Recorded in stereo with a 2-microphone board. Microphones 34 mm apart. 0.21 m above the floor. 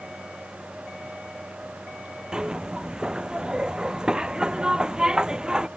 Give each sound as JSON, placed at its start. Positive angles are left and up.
{"t": 2.3, "sound": "a zipper", "side_deg": -25}